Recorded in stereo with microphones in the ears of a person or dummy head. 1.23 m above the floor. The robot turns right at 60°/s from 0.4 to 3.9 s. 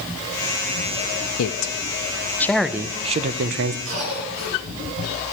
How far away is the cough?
About 9 m.